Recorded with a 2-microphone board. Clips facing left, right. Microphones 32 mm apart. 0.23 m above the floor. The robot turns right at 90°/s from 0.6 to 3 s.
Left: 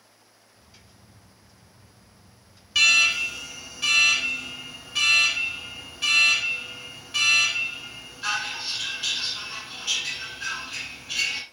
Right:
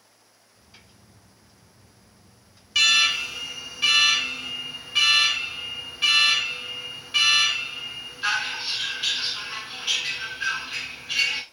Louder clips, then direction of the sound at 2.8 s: Left 1 dB; centre (ahead or behind).